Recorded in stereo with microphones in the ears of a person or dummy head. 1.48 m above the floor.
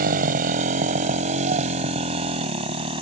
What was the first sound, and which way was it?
A motorcycle, 40° right (ahead or behind).